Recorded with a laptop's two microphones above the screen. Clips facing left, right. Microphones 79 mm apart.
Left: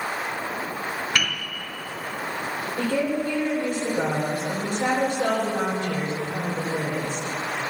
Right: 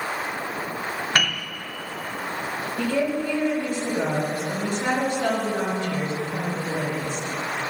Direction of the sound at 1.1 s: 45° right (ahead or behind).